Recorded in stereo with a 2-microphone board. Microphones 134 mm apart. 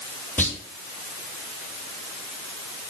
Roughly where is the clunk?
Centre.